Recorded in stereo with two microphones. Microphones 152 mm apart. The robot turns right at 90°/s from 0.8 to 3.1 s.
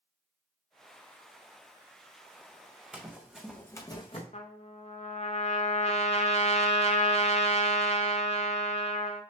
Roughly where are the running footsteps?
Centre.